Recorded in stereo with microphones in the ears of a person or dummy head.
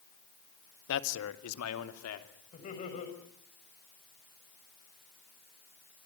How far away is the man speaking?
About 1.5 m.